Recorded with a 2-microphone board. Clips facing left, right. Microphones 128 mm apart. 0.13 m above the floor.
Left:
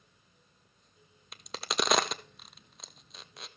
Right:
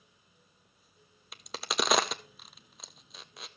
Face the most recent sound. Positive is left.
turn(degrees=0)  # may be behind; listen again after turning